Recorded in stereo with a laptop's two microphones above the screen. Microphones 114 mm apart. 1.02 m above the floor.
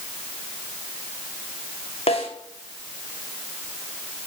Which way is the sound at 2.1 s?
60° left (ahead or behind).